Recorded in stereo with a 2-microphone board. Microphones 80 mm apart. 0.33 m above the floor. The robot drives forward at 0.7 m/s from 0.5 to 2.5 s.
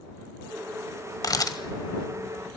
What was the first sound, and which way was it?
A camera shutter, 50° left (ahead or behind).